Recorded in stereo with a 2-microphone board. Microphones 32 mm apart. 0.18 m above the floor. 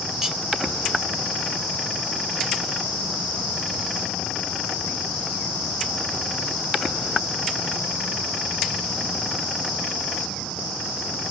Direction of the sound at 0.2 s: 10° right (ahead or behind).